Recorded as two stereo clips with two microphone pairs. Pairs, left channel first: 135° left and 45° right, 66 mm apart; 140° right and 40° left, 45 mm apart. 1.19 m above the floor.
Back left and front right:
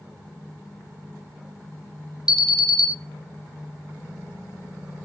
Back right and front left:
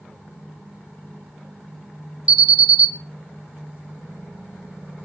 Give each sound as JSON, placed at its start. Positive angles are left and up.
{"t": 2.3, "sound": "an alarm", "azimuth_deg": 20, "distance_m": 0.9}